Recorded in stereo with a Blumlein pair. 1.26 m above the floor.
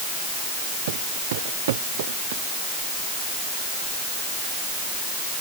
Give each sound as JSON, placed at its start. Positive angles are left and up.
{"t": 0.9, "sound": "footsteps", "azimuth_deg": -55}